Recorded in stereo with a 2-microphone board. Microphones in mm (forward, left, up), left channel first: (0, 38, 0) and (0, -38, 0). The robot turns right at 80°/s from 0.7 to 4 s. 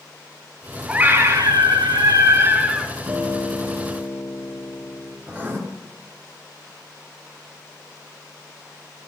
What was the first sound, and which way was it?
A scream, 165° right.